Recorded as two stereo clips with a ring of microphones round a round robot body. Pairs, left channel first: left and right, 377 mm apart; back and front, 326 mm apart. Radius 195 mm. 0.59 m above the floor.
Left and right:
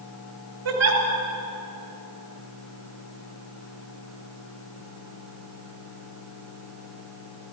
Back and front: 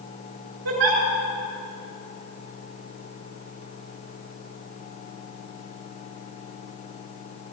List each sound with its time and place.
0.7 s a giggle: 40° right, 2.5 m